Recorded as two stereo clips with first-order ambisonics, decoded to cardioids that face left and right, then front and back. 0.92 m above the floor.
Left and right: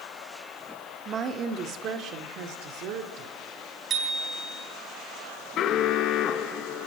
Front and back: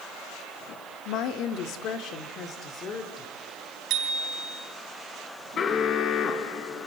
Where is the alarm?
55° left, 1.9 m.